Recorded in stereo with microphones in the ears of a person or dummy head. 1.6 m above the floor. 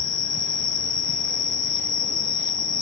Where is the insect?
5° left (ahead or behind), 1.1 m.